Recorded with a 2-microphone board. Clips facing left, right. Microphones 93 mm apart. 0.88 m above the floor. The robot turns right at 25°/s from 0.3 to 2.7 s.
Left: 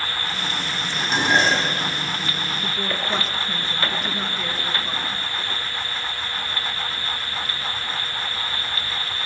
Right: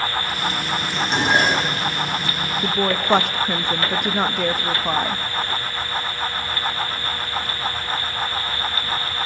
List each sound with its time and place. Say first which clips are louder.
0.9 s dishes clattering: even; 5° left (ahead or behind), 4 m; by 1.9 s 20° right (ahead or behind), 4 m
2.6 s a woman speaking: right 9 dB; 60° right (ahead or behind), 0.8 m